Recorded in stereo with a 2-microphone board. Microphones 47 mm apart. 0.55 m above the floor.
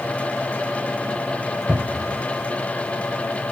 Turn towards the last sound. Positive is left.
turn(degrees=-40)  # may be behind; listen again after turning